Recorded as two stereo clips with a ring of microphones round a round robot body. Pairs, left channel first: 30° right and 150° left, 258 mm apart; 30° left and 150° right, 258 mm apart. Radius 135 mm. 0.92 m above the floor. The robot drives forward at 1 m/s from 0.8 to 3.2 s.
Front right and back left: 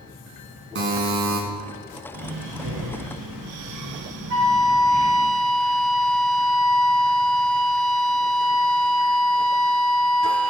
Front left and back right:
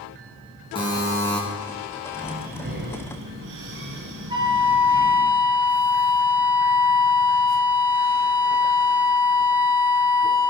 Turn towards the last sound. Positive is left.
turn(degrees=140)